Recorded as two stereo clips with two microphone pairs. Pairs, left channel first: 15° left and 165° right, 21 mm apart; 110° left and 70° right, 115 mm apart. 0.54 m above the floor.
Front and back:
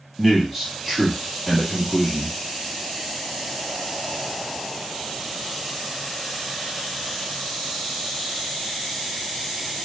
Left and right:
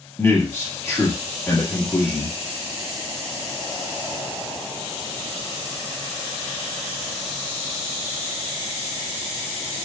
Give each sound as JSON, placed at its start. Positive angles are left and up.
{"t": 0.2, "sound": "a man speaking", "azimuth_deg": 145, "distance_m": 1.1}